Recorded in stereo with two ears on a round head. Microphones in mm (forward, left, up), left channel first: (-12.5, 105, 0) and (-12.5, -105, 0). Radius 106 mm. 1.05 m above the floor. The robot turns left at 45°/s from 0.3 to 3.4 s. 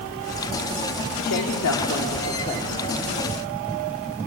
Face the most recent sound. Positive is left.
turn(degrees=-10)